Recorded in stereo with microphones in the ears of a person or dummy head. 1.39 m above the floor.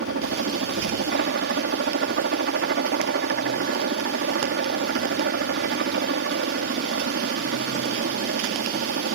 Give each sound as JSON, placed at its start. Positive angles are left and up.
{"t": 0.0, "sound": "a helicopter", "side_deg": -50}